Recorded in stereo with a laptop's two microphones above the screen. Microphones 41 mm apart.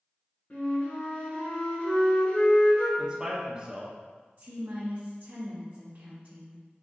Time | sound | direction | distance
0.5 | a flute | 45° left (ahead or behind) | 1.6 m
3.0 | a man speaking | 25° right (ahead or behind) | 0.6 m
4.4 | a woman speaking | 60° right (ahead or behind) | 0.8 m